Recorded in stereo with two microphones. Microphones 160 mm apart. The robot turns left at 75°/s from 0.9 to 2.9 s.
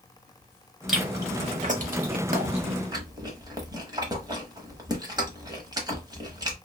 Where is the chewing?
Centre (ahead or behind), 0.9 m; by 6.5 s 25° right (ahead or behind), 0.9 m.